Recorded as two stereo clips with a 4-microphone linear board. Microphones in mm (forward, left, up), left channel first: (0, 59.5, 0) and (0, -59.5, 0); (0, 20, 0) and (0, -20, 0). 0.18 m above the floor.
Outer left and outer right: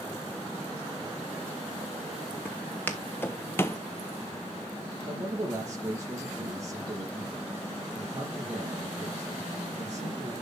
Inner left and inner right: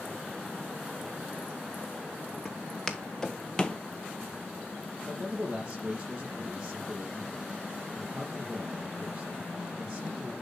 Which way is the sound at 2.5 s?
15° left (ahead or behind).